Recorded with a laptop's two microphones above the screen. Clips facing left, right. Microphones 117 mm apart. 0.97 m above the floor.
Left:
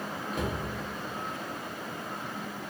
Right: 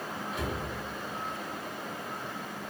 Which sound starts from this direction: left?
A cupboard door, at 0.3 s.